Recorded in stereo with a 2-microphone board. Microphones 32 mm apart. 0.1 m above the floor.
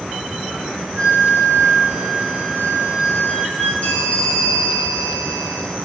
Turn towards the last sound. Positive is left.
turn(degrees=50)  # may be behind; listen again after turning